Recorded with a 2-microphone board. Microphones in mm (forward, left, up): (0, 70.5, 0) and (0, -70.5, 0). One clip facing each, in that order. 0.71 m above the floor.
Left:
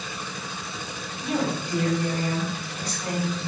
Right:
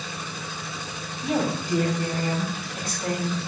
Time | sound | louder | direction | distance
1.2 | a woman speaking | right 1 dB | 35° right (ahead or behind) | 5 m